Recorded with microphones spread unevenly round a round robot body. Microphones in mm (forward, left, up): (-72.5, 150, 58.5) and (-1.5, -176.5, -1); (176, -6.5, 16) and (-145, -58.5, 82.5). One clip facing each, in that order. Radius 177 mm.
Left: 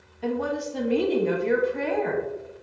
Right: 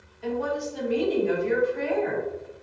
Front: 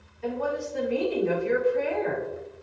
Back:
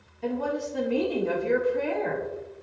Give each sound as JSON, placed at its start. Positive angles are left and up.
{"t": 0.2, "sound": "a woman speaking", "azimuth_deg": 135, "distance_m": 1.0}